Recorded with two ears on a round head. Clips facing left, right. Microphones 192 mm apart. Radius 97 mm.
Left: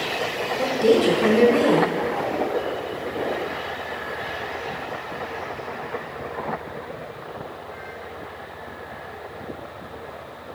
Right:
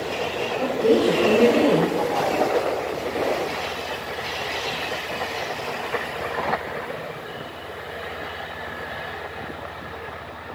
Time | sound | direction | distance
0.6 | a woman speaking | 35° left (ahead or behind) | 1.6 m